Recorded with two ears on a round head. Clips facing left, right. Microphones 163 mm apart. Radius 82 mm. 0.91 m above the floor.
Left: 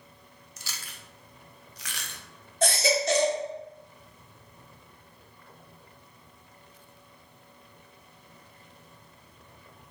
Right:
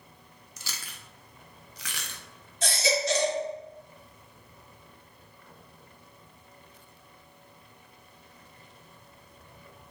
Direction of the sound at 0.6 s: 70° right (ahead or behind).